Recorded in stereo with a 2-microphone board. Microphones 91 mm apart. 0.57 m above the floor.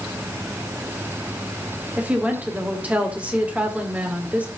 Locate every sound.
2.0 s a woman speaking: 15° right (ahead or behind), 1.7 m